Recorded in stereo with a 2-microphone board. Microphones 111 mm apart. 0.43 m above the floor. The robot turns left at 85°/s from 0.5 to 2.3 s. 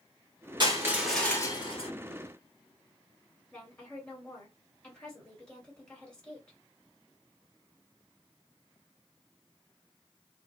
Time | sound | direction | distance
0.6 | crushing | 135° right | 1.2 m
3.5 | a woman speaking | 10° left (ahead or behind) | 1.9 m